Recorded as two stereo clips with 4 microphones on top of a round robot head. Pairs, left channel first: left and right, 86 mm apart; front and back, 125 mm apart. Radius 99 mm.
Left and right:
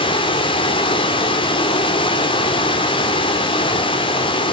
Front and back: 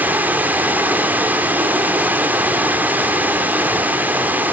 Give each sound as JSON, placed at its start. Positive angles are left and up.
{"t": 0.0, "sound": "running water", "azimuth_deg": 105, "distance_m": 1.7}